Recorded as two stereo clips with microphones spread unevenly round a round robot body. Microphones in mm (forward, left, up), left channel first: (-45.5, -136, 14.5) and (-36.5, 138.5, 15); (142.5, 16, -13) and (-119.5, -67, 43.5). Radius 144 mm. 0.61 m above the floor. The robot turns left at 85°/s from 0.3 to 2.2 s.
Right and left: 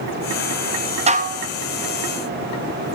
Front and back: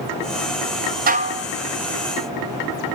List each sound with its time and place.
1.1 s dishes clattering: 140° left, 0.6 m; by 1.5 s 105° left, 0.6 m